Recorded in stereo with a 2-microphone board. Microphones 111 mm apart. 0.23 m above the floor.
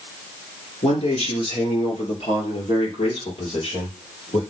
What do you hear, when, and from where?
0.8 s a man speaking: 65° left (ahead or behind), 3 m